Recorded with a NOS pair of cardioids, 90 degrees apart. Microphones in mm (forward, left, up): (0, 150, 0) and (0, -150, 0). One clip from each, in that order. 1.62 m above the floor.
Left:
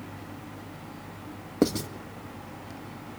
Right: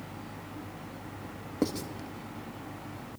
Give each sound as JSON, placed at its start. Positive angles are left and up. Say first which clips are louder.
{"t": 1.6, "sound": "writing", "louder": "left 6 dB", "azimuth_deg": 40, "distance_m": 2.0}